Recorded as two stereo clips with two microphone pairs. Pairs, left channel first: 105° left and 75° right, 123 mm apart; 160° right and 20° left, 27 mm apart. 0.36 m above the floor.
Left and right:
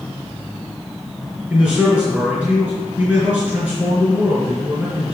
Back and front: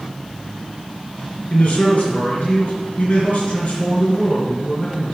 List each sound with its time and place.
1.5 s a man speaking: 155° right, 4 m